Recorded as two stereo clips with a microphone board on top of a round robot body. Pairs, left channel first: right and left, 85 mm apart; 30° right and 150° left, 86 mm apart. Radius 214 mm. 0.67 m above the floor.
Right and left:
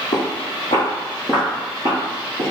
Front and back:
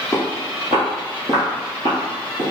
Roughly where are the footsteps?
Right.